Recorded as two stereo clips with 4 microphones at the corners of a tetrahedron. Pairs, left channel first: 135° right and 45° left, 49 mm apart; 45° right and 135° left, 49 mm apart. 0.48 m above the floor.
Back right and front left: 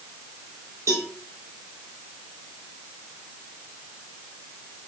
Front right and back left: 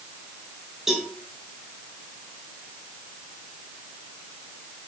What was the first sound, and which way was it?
A cowbell, 55° left.